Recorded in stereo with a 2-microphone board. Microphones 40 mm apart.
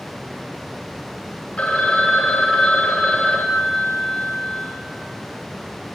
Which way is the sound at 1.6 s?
30° left (ahead or behind).